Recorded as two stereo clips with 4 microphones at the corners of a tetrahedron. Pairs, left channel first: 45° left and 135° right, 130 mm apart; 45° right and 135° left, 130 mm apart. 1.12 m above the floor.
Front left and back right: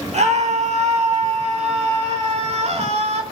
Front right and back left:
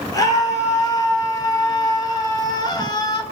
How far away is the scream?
About 4.5 m.